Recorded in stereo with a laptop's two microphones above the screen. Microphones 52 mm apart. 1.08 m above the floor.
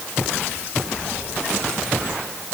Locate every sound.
Only background noise.